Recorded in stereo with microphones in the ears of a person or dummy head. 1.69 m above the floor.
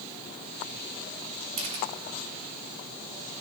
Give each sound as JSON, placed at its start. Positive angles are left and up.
{"t": 1.6, "sound": "a camera shutter", "side_deg": -35, "distance_m": 1.4}